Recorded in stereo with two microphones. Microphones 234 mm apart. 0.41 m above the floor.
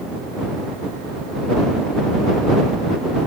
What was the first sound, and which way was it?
Only background noise.